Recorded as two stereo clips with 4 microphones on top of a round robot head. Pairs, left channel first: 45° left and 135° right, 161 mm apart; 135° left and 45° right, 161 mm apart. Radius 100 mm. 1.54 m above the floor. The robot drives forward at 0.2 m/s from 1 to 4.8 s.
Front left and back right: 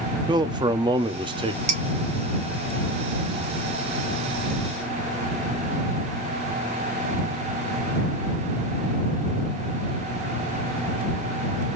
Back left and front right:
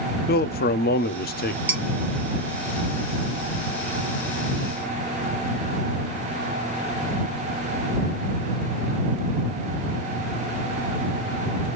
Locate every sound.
0.3 s a man speaking: 160° left, 0.6 m; by 1.6 s 165° left, 0.7 m
1.7 s dishes clattering: 120° right, 0.6 m; by 1.8 s 125° right, 0.6 m